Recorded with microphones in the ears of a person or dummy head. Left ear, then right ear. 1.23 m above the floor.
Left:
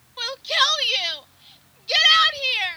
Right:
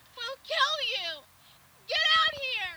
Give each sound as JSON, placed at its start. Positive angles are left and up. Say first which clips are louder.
{"t": 0.2, "sound": "a shout", "louder": "left 7 dB", "side_deg": 20}